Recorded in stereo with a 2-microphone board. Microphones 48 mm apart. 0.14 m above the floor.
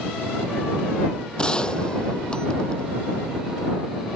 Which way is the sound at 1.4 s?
20° left (ahead or behind).